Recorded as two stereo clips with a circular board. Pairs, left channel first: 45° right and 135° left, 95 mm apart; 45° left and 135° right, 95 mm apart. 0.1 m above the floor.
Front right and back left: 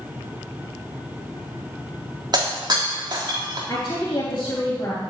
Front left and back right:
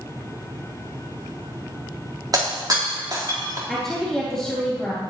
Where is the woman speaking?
40° right, 3.5 m.